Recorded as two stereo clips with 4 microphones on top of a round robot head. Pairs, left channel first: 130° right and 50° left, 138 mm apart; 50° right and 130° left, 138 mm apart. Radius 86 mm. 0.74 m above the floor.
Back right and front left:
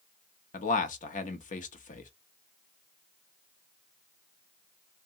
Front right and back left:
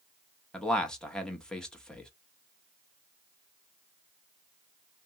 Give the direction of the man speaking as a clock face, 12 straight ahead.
5 o'clock.